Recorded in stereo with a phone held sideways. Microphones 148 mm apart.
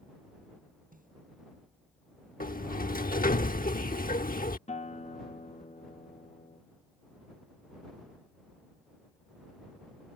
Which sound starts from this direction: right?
A snare drum, at 0.9 s.